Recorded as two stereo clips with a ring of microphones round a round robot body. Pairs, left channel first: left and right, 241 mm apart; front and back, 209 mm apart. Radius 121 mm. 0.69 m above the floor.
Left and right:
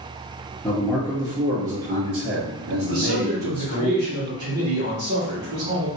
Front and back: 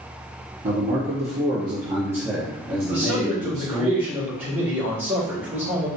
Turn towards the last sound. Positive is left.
turn(degrees=-100)